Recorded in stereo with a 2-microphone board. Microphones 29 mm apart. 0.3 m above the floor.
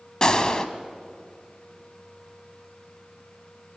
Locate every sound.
0.2 s a gunshot: 30° left (ahead or behind), 1.2 m